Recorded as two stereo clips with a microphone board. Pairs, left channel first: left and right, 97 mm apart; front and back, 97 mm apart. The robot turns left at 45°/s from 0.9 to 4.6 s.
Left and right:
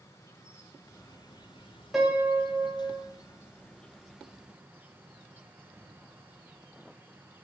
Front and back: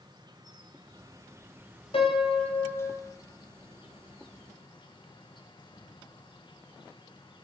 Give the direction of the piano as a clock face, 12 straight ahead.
12 o'clock.